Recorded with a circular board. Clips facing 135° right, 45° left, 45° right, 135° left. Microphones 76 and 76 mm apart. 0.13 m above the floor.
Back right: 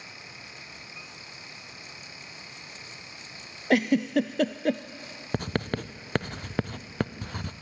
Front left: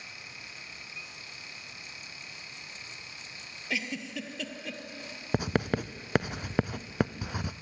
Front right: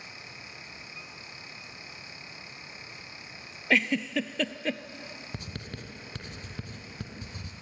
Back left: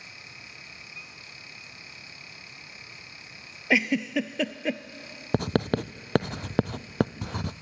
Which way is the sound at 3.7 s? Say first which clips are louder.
Back right 13 dB, back left 2 dB; 145° right.